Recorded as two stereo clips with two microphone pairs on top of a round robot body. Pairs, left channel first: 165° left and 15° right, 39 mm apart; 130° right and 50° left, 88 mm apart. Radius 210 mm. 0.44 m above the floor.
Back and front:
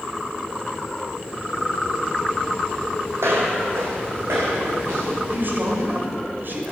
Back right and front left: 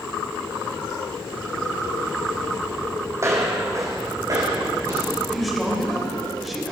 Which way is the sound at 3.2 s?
15° right.